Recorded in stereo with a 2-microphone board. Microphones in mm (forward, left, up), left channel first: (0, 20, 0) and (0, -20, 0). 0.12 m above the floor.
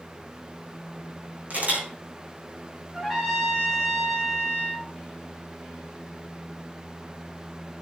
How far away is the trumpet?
About 5.5 m.